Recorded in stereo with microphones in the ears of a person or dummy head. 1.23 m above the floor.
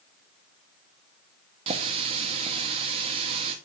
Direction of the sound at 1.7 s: 35° right (ahead or behind).